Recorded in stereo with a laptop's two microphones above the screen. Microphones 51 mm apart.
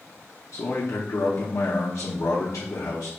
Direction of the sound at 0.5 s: 65° left (ahead or behind).